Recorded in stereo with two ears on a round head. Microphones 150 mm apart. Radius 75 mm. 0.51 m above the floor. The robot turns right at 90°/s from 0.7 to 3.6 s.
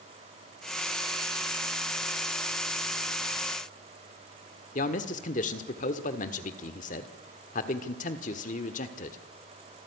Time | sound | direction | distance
4.8 | a man speaking | 50° left (ahead or behind) | 1.5 m